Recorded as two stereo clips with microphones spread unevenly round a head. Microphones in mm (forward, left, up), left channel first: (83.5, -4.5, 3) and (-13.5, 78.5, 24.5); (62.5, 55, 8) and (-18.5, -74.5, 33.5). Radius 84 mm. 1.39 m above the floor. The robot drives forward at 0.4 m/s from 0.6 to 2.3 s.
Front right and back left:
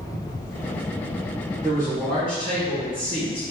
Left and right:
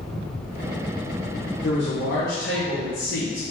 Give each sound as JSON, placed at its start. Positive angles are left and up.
{"t": 1.6, "sound": "a man speaking", "azimuth_deg": 75, "distance_m": 1.3}